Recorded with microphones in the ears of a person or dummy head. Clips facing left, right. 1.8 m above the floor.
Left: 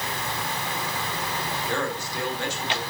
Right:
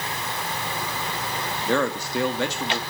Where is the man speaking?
65° right (ahead or behind), 1.2 m.